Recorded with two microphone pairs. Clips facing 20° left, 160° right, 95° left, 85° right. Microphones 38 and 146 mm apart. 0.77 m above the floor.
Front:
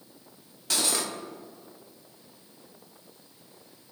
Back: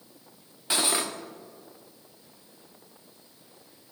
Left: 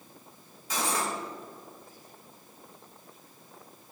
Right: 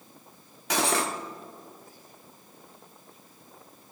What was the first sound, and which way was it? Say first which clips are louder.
Cutlery clinking: back 2 dB, right 4 dB; 100° right.